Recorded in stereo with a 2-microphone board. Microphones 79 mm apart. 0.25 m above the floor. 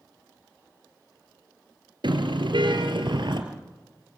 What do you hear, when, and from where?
2.0 s a car horn: 75° right (ahead or behind), 2.5 m